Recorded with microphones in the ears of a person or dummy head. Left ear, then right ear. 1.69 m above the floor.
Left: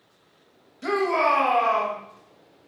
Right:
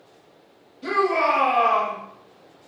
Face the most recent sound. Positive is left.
turn(degrees=20)  # may be behind; listen again after turning